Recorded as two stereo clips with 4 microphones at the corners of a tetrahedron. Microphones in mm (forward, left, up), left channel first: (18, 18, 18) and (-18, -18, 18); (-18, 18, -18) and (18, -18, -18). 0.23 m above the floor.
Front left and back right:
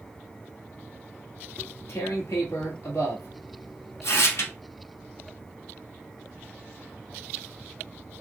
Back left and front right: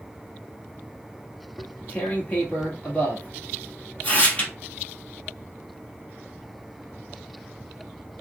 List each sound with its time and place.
1.6 s tearing paper: 75° left, 1.5 m